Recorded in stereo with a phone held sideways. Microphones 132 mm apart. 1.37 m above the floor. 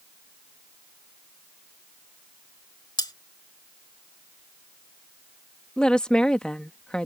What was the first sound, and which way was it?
Cutlery clinking, 35° left (ahead or behind).